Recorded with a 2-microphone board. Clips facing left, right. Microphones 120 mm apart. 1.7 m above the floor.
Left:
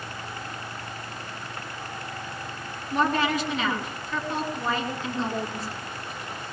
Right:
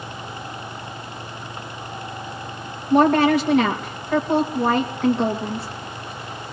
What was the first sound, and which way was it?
A woman speaking, 70° right (ahead or behind).